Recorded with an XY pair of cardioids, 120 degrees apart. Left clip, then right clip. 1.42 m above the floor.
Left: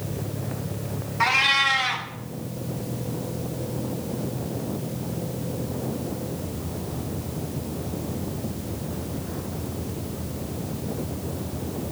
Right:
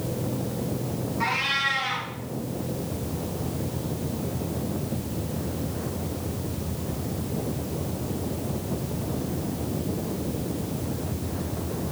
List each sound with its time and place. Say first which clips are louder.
1.2 s a cat meowing: left 6 dB; 65° left, 2 m